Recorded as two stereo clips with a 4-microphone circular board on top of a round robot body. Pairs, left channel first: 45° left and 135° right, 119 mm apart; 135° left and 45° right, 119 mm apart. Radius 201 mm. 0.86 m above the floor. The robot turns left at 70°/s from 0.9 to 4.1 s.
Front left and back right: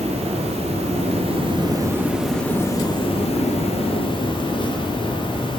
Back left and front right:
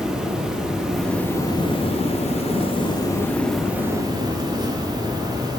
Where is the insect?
130° right, 2 m; by 5.6 s 5° left, 2 m.